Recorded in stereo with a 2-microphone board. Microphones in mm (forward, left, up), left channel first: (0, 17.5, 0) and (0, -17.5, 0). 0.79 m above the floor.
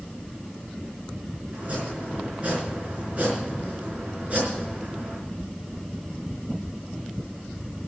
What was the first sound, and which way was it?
Chopping, 45° right (ahead or behind).